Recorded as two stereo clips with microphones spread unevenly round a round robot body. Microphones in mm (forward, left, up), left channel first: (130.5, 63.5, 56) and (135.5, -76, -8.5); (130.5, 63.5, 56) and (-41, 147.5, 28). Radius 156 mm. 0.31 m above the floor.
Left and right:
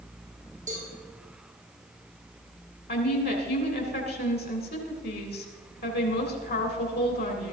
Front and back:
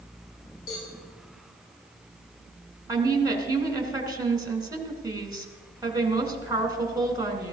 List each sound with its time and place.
0.7 s a cowbell: 60° right, 8 m
2.9 s a woman speaking: 85° left, 3 m